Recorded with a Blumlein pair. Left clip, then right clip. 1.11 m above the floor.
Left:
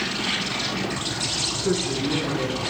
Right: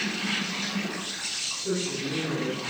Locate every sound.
0.0 s an insect: 65° left, 3 m
1.6 s a woman speaking: 70° left, 2.5 m